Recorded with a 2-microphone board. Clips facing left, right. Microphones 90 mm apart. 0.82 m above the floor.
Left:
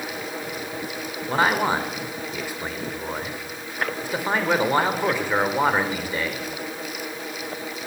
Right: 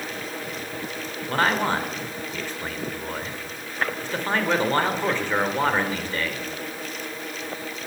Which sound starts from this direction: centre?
A man speaking, at 1.3 s.